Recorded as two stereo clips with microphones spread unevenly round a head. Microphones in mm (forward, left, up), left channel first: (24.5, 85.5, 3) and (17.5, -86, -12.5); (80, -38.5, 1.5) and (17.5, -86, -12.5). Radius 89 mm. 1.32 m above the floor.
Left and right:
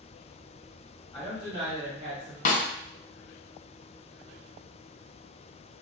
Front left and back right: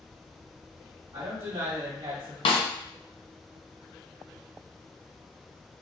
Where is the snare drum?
45° left, 0.7 m.